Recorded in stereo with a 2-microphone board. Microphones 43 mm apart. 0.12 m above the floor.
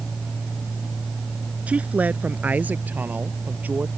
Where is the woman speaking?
35° right (ahead or behind); by 3.9 s 45° right (ahead or behind).